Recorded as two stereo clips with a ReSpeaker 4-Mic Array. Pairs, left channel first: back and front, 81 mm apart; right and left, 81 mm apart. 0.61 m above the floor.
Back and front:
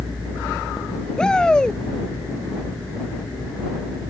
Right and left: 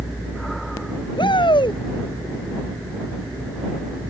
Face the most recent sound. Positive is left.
turn(degrees=-100)